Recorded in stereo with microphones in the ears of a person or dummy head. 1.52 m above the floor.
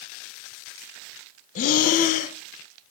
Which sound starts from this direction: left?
Breathing, at 1.6 s.